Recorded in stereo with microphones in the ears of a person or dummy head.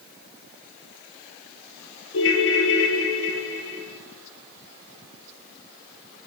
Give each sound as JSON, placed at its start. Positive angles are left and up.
{"t": 2.1, "sound": "a ringtone", "side_deg": 65, "distance_m": 1.1}